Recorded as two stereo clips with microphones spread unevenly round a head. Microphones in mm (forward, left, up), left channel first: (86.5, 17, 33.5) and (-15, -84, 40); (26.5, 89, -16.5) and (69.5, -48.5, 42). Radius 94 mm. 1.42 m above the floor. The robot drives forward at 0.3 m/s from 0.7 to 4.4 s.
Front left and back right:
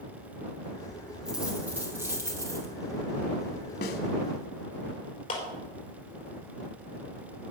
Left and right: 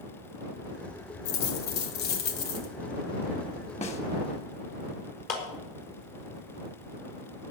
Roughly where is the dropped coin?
Behind left.